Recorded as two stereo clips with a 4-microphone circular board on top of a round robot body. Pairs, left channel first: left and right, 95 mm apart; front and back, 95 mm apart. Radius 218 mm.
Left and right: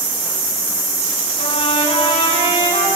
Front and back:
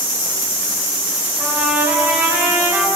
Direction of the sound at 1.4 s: 110° left.